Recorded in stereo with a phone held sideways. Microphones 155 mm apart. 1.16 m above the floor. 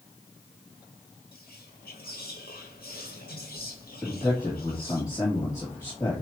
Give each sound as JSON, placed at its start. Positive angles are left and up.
{"t": 1.3, "sound": "whispering", "side_deg": 70, "distance_m": 1.5}
{"t": 4.0, "sound": "a man speaking", "side_deg": 20, "distance_m": 2.5}